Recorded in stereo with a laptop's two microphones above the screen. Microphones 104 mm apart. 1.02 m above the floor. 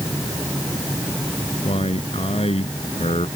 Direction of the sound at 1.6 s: 80° left.